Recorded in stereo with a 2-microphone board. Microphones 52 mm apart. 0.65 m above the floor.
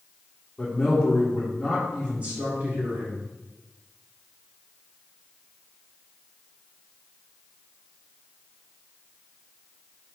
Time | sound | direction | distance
0.6 | a man speaking | 15° left (ahead or behind) | 1.7 m